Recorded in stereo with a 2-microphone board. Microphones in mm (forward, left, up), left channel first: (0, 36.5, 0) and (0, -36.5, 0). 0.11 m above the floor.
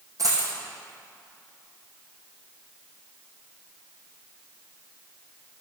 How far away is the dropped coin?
About 2.5 m.